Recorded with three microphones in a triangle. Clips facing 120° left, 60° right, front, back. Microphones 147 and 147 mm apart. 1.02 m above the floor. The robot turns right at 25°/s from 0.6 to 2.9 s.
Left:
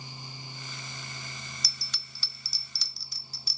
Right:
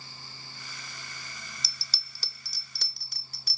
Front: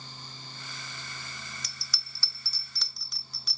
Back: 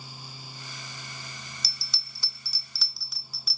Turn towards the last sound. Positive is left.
turn(degrees=-95)